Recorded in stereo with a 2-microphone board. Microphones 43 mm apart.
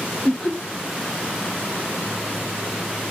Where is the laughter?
45° left (ahead or behind), 1.7 m.